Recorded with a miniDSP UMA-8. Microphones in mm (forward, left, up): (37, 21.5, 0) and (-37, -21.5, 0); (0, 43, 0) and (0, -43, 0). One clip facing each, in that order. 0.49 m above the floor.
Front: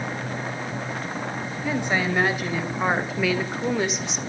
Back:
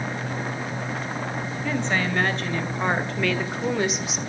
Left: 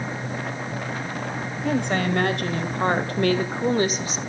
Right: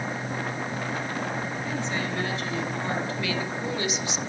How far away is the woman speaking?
About 2.5 m.